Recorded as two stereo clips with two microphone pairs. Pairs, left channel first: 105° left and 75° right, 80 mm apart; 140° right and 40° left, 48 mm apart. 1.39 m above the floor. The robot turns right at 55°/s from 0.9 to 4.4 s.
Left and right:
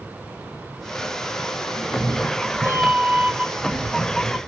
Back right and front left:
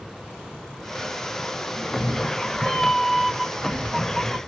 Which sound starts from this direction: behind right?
A cat meowing, at 1.7 s.